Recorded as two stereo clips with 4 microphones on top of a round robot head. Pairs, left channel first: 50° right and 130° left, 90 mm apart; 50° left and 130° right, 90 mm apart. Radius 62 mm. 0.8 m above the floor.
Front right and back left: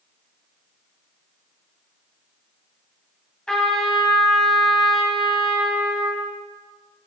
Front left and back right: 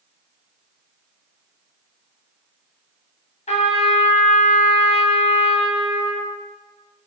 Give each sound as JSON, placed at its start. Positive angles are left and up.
{"t": 3.5, "sound": "a trumpet", "azimuth_deg": 35, "distance_m": 2.0}